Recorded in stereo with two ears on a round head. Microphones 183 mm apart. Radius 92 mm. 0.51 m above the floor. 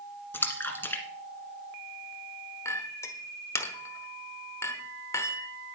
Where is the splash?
10° left (ahead or behind), 1.7 m.